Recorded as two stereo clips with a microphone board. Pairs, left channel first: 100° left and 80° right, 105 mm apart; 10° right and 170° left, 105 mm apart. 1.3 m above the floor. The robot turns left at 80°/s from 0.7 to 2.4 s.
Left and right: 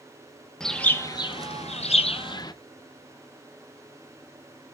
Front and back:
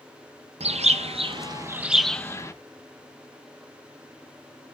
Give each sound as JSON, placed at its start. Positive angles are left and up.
{"t": 0.6, "sound": "a bird", "azimuth_deg": -175, "distance_m": 0.6}